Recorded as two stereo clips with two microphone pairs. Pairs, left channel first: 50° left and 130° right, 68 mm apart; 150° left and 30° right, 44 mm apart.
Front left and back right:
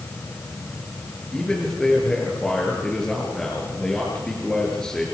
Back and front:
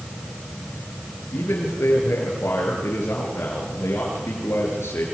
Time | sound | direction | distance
1.3 | a man speaking | 130° left | 7.5 m